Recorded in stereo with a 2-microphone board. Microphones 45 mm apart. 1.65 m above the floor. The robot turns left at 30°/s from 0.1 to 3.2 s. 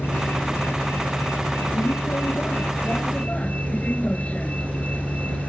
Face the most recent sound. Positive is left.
turn(degrees=35)